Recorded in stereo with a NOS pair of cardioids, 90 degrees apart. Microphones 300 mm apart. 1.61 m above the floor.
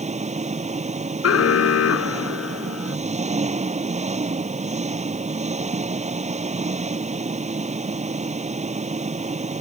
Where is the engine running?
25° right.